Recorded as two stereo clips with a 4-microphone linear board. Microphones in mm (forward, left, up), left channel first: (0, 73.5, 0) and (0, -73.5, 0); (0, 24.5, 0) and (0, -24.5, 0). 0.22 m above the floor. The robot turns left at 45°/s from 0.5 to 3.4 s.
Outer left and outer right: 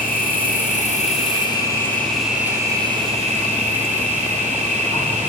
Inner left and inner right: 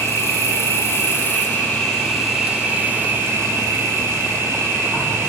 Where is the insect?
75° left, 3 m; by 5.3 s 55° right, 3 m.